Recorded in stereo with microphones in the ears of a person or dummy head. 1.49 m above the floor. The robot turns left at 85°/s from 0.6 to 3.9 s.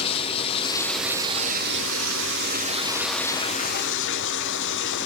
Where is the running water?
30° left, 0.9 m; by 5.1 s 110° left, 0.9 m.